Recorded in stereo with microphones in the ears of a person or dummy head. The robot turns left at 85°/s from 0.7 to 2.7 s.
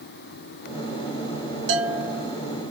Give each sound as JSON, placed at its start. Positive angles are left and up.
{"t": 1.7, "sound": "a bell", "azimuth_deg": -85, "distance_m": 1.7}